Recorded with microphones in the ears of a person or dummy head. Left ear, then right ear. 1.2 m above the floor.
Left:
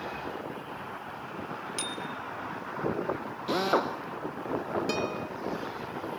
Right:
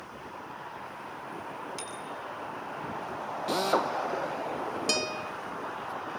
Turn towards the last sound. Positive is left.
turn(degrees=-20)  # may be behind; listen again after turning